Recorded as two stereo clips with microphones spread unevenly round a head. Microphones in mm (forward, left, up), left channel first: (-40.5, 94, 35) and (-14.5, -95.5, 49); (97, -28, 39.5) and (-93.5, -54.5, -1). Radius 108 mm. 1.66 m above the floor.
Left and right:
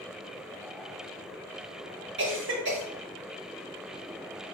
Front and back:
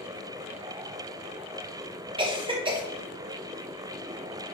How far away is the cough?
About 2.5 m.